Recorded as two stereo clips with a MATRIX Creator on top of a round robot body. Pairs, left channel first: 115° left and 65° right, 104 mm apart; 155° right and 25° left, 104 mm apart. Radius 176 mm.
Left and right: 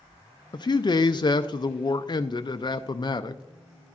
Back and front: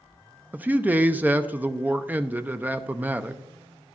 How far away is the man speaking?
About 0.5 m.